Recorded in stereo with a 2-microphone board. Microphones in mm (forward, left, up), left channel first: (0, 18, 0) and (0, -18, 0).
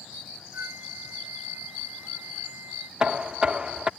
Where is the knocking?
25° right (ahead or behind).